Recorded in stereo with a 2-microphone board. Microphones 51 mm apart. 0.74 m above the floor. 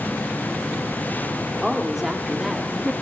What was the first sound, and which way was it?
A woman speaking, 5° right (ahead or behind).